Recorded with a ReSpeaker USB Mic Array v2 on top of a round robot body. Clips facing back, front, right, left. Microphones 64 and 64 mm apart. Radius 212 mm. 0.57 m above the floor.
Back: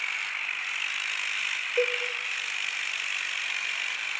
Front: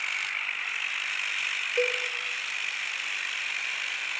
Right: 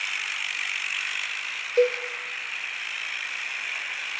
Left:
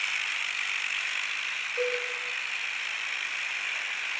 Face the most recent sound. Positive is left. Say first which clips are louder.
# back 1 dB, right 9 dB
turn(degrees=-100)